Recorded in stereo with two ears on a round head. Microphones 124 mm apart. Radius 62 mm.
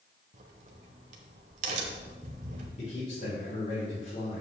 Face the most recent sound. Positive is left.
turn(degrees=50)  # may be behind; listen again after turning